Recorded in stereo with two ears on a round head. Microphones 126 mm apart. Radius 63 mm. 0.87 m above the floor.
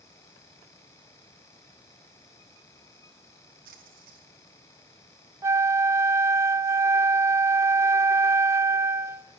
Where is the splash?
65° right (ahead or behind), 4 m.